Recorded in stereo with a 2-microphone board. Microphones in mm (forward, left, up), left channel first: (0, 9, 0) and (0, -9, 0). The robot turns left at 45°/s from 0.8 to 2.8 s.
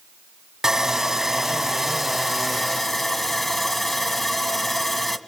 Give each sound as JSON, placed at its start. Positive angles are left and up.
{"t": 0.6, "sound": "sawing", "azimuth_deg": -105, "distance_m": 1.7}